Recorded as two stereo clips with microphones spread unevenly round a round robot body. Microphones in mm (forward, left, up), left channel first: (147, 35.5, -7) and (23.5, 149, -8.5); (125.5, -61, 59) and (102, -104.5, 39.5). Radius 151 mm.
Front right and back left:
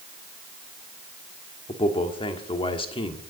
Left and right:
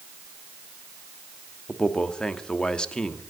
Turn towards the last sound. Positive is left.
turn(degrees=-40)